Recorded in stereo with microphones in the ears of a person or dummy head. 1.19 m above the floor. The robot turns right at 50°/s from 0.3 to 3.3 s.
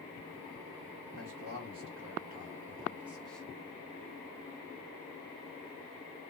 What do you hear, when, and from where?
1.1 s a man speaking: 105° right, 1.4 m; by 3.5 s 5° left, 1.4 m